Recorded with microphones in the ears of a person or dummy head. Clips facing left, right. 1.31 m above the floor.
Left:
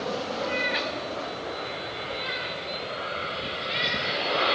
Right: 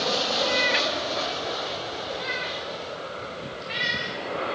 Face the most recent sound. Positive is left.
turn(degrees=-50)  # may be behind; listen again after turning